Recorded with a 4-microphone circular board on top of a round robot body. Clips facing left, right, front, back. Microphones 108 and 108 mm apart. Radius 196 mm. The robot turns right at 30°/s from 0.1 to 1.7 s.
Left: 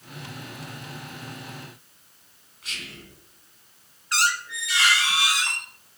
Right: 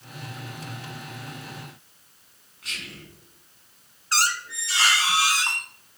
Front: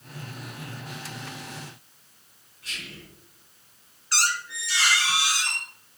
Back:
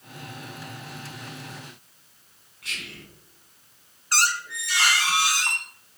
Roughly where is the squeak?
Behind right.